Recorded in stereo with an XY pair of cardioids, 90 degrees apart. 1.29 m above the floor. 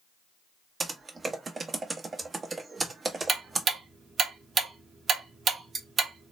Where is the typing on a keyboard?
40° right, 1.0 m.